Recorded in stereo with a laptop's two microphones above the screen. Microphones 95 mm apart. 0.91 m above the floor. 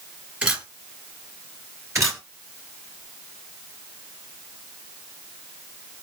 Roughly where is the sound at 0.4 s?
Centre.